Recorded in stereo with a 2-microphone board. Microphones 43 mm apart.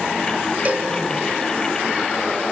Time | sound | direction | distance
0.7 | a cowbell | 40° right (ahead or behind) | 1.2 m